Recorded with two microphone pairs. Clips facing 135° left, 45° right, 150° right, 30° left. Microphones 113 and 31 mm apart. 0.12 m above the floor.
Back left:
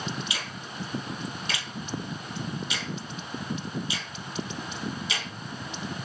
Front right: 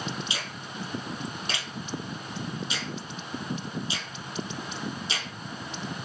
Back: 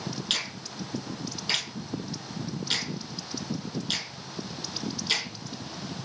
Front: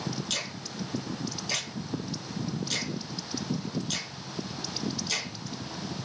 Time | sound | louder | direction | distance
0.3 | a finger snap | even, back 3 dB | 105° right | 3 m